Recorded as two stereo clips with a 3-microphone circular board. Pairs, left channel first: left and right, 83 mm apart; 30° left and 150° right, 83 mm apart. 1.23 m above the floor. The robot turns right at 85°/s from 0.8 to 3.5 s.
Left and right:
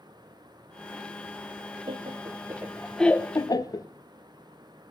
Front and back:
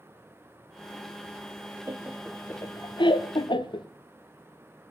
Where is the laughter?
90° right, 0.5 m; by 3.9 s 50° left, 0.5 m.